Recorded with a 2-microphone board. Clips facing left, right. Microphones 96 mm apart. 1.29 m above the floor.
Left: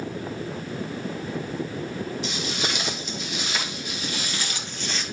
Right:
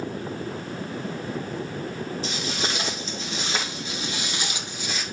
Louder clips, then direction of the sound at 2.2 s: Even; 35° right (ahead or behind).